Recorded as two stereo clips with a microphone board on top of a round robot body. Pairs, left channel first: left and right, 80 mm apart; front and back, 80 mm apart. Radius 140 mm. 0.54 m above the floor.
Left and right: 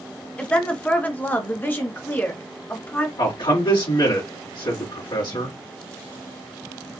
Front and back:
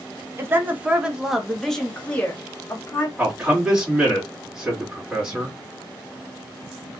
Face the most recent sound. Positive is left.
turn(degrees=105)